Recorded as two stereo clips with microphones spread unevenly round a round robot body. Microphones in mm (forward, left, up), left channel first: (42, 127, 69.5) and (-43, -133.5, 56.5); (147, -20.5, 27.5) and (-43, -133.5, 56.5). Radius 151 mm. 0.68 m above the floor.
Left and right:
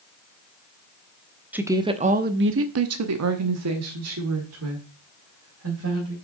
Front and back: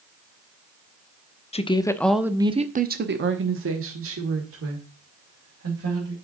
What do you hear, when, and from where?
1.5 s a woman speaking: 25° right, 1.0 m; by 6.2 s 145° right, 3 m